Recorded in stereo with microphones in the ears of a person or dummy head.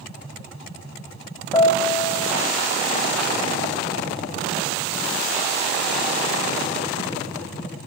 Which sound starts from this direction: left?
A piano, at 1.5 s.